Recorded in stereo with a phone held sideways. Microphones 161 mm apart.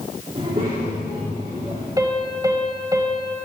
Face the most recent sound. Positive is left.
turn(degrees=-20)  # may be behind; listen again after turning